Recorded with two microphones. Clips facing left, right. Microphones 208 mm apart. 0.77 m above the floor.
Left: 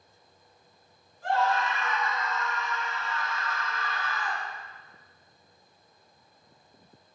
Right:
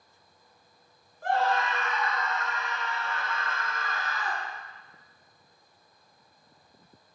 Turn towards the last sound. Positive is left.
turn(degrees=-30)  # may be behind; listen again after turning